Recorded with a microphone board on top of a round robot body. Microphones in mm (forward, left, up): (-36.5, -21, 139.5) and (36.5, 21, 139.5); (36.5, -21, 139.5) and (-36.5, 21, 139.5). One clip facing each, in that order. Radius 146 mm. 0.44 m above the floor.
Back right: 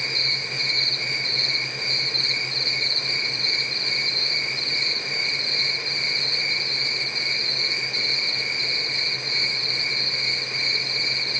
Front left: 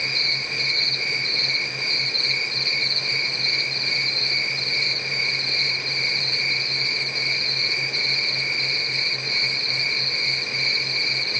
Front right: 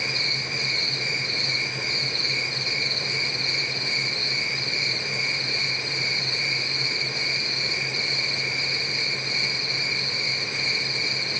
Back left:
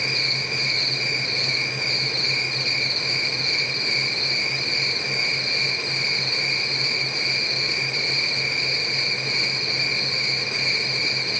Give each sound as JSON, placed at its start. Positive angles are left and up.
{"t": 0.0, "sound": "an insect", "azimuth_deg": 150, "distance_m": 5.5}